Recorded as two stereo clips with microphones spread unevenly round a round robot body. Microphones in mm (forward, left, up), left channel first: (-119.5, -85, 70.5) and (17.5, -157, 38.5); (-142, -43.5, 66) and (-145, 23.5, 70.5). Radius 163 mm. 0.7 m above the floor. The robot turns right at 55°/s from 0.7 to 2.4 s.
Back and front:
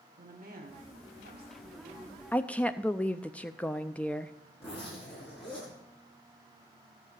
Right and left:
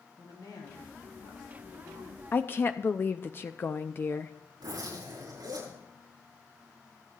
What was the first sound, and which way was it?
A woman speaking, 50° right.